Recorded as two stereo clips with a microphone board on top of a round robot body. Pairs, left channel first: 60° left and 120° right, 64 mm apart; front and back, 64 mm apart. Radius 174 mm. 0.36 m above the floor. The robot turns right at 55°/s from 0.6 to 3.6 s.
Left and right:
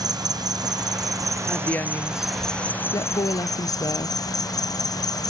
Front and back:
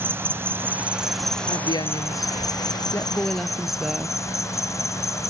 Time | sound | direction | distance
0.0 | an insect | 125° right | ?
1.5 | a woman speaking | 20° right | ?